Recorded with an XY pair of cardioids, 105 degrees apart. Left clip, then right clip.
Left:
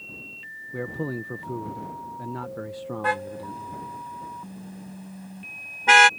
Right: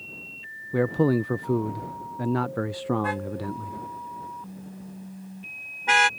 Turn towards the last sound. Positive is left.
turn(degrees=35)